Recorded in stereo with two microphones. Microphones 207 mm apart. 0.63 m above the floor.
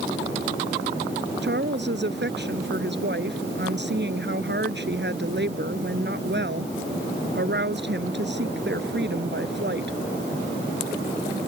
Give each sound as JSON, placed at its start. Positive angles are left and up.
{"t": 1.4, "sound": "a woman speaking", "side_deg": -60}